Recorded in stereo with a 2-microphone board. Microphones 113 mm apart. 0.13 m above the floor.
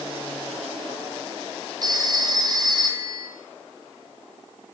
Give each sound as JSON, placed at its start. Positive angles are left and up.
{"t": 1.8, "sound": "a phone ringing", "side_deg": -35, "distance_m": 3.0}